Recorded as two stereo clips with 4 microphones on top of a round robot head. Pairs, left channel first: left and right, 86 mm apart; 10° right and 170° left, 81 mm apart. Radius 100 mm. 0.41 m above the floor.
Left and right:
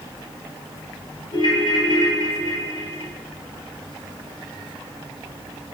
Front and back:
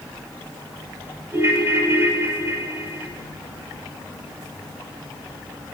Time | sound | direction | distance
1.3 | a ringtone | 115° left | 1.6 m